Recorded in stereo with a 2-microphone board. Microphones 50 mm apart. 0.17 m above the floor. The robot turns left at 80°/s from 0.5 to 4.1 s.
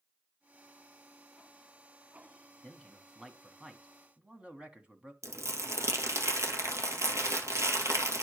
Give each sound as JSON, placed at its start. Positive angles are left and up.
{"t": 2.6, "sound": "a man speaking", "side_deg": 15, "distance_m": 1.1}
{"t": 5.2, "sound": "crumpling", "side_deg": -75, "distance_m": 1.6}